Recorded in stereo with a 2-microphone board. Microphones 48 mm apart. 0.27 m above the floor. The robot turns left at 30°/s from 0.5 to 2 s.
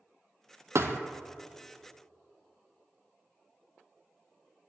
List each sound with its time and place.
0.8 s a thud: 70° right (ahead or behind), 0.6 m